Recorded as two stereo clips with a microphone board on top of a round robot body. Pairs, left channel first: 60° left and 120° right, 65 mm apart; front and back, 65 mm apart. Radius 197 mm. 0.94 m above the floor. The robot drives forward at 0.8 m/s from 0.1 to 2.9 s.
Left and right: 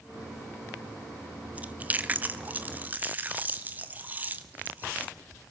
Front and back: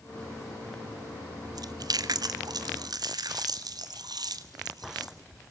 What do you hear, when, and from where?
1.6 s chewing: 175° left, 1.2 m